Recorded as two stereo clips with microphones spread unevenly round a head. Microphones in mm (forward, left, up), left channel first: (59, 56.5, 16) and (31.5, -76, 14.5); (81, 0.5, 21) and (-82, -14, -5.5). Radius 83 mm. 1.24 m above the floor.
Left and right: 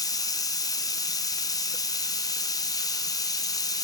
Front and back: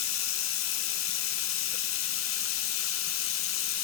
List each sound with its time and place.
0.0 s running water: 15° left, 0.7 m